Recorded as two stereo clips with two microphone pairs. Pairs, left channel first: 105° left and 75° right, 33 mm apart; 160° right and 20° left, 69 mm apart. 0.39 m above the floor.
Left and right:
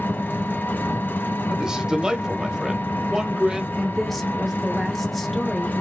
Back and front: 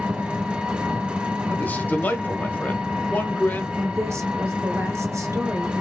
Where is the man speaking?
125° right, 1.3 m.